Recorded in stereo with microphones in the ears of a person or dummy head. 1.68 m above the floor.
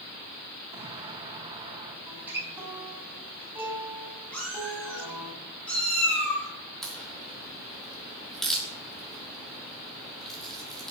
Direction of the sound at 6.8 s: 5° left (ahead or behind).